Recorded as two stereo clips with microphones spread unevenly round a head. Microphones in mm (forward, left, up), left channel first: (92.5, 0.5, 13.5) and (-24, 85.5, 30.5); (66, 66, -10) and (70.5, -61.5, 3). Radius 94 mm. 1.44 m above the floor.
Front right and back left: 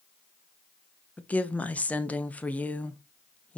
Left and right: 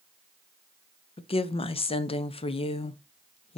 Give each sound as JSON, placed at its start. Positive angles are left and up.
{"t": 1.2, "sound": "a woman speaking", "azimuth_deg": 45, "distance_m": 0.6}